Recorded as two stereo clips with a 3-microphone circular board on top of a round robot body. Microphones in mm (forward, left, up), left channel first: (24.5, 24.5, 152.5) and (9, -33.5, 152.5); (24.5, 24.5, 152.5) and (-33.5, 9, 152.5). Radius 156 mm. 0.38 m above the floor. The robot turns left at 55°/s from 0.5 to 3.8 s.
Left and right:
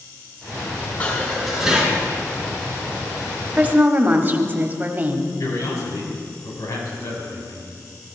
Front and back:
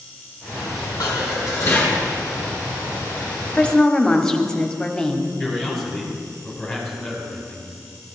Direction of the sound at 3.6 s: 50° right.